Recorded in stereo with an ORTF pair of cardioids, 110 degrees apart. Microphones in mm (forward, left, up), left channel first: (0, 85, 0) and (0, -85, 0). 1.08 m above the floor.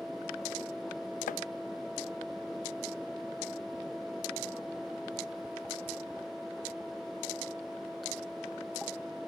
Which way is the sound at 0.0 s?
Straight ahead.